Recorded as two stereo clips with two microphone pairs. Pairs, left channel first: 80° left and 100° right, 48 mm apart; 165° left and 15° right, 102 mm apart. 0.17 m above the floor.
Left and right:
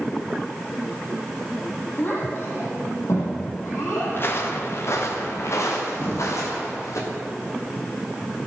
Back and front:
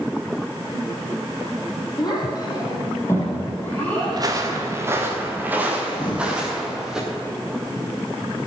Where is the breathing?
130° left, 2 m.